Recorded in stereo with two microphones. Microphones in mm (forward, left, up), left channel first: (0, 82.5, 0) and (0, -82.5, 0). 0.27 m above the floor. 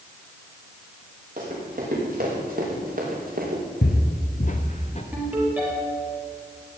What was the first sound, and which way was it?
Running footsteps, 55° right (ahead or behind).